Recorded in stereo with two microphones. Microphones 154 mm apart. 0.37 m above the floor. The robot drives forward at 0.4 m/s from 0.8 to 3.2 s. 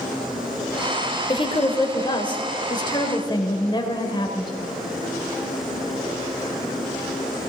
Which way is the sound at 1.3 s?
30° left (ahead or behind).